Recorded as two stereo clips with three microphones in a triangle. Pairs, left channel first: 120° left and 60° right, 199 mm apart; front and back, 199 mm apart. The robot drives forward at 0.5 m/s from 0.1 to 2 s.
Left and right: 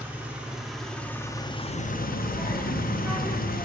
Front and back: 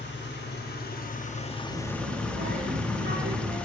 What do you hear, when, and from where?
0.0 s an engine running: 20° left, 1.1 m; by 3.6 s 85° left, 0.5 m
1.7 s a child speaking: 145° right, 1.9 m; by 3.5 s 150° right, 2 m